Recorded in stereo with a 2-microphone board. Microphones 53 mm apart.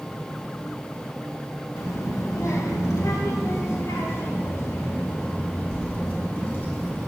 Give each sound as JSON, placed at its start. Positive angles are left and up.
{"t": 1.8, "sound": "a child speaking", "side_deg": 75, "distance_m": 1.6}